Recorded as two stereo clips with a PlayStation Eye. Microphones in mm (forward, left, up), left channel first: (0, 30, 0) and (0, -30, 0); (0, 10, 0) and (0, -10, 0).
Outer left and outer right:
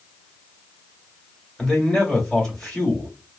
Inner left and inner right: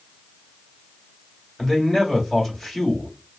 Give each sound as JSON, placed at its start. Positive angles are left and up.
{"t": 1.6, "sound": "a man speaking", "side_deg": 15, "distance_m": 2.0}